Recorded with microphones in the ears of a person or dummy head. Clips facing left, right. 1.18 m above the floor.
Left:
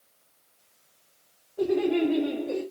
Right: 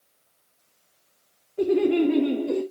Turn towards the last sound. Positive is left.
turn(degrees=-70)  # may be behind; listen again after turning